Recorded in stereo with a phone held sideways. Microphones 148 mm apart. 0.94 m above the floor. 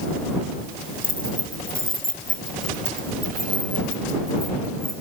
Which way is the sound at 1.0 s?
70° left (ahead or behind).